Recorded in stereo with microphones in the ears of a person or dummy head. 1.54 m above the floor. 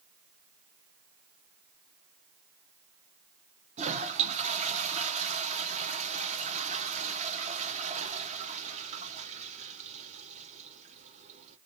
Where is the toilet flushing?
35° right (ahead or behind), 0.8 m.